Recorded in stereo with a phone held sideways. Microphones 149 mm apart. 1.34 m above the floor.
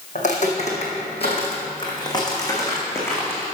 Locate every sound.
0.1 s footsteps: 55° left (ahead or behind), 3.5 m; by 3.5 s 10° left (ahead or behind), 4 m